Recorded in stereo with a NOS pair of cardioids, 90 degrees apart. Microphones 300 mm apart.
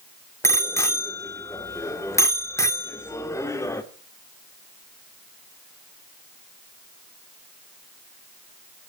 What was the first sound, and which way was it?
A bicycle bell, 10° left.